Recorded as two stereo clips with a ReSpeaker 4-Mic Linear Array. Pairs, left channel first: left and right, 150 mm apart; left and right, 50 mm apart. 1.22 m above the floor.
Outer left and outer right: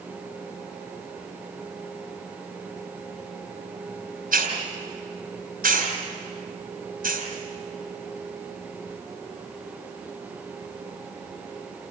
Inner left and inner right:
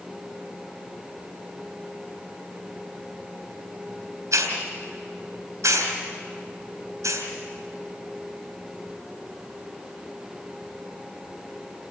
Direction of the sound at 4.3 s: 75° right (ahead or behind).